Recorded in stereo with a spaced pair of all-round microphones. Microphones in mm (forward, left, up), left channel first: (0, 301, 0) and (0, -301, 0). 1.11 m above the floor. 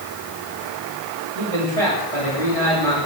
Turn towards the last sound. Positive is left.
turn(degrees=-60)  # may be behind; listen again after turning